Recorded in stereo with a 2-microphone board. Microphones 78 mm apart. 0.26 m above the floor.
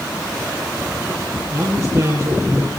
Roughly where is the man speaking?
Right.